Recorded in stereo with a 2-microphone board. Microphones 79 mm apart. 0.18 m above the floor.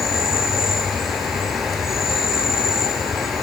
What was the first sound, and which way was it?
An insect, 5° right (ahead or behind).